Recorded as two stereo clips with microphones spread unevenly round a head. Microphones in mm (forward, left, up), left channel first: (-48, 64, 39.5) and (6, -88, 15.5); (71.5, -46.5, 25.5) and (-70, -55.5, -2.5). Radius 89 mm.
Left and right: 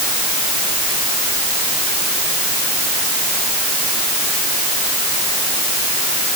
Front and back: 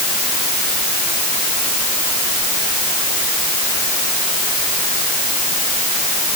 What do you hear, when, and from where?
Only background noise.